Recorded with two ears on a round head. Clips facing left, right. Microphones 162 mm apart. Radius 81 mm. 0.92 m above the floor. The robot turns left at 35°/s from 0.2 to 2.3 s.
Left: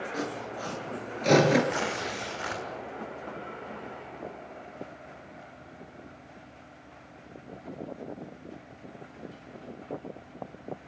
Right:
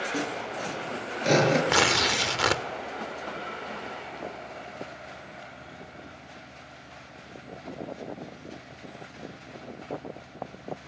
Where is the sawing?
40° right (ahead or behind), 7 m; by 1.6 s 10° left (ahead or behind), 7 m.